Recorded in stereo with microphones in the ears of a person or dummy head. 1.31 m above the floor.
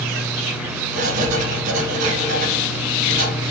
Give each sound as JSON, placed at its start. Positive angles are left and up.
{"t": 0.9, "sound": "writing", "side_deg": -45, "distance_m": 0.6}